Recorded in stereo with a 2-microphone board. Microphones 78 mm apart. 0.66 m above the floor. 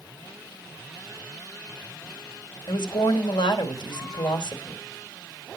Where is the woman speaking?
70° left (ahead or behind), 3 m.